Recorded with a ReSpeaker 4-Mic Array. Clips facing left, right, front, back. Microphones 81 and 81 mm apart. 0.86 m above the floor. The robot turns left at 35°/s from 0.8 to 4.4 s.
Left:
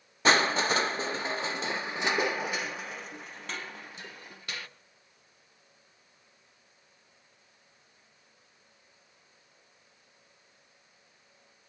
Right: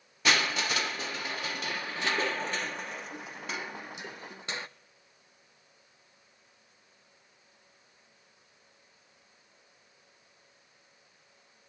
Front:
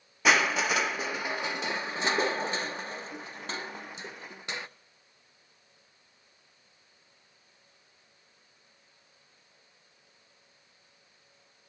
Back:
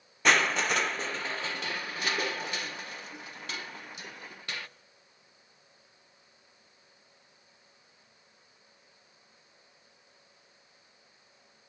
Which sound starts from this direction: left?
Crushing, at 0.2 s.